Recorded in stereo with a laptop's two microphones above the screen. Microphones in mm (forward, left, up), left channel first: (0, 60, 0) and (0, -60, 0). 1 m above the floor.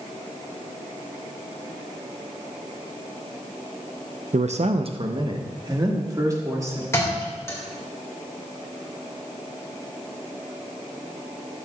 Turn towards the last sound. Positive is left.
turn(degrees=20)  # may be behind; listen again after turning